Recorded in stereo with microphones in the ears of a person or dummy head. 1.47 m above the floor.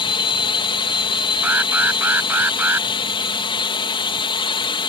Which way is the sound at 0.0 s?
20° left (ahead or behind).